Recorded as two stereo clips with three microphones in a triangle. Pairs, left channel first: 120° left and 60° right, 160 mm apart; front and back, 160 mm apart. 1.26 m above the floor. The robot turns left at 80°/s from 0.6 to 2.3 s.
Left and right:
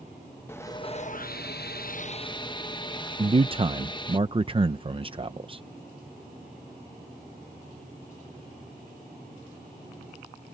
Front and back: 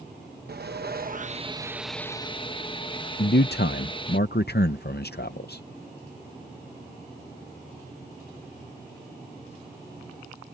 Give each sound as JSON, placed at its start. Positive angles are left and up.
{"t": 0.5, "sound": "sawing", "azimuth_deg": -165}
{"t": 3.2, "sound": "a man speaking", "azimuth_deg": 0}